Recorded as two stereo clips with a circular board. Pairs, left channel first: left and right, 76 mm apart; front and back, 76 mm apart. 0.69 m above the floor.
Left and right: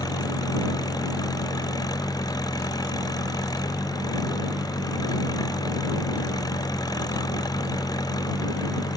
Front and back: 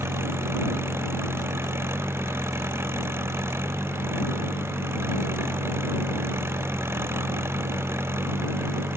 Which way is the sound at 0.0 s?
125° left.